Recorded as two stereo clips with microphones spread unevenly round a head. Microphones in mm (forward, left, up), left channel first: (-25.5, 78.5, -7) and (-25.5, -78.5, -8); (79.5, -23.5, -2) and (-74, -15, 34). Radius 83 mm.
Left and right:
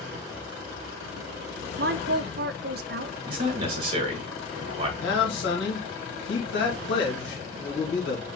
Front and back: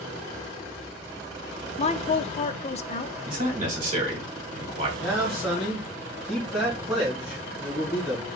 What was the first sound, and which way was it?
A woman speaking, 55° right.